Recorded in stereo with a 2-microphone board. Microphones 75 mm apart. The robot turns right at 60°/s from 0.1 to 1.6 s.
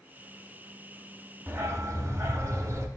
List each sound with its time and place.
1.5 s a dog barking: 35° right (ahead or behind), 0.5 m; by 2.9 s 40° right (ahead or behind), 0.5 m